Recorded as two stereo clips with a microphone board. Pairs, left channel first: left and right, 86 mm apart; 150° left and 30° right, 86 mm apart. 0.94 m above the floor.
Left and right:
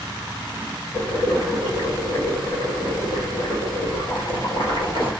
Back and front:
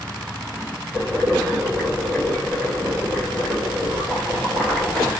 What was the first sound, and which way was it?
Boiling, 75° left.